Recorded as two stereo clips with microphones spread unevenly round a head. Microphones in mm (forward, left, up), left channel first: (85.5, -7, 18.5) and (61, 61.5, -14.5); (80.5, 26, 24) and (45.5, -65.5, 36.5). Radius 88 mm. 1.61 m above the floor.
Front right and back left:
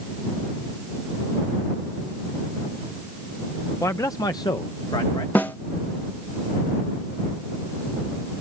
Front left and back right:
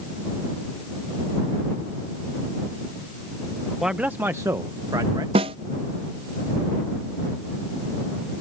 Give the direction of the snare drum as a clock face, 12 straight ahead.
5 o'clock.